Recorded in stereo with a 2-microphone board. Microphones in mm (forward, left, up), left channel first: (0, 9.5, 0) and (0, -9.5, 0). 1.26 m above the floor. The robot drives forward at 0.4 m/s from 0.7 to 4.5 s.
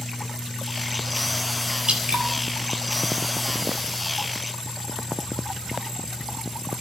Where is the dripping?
85° right, 3.5 m.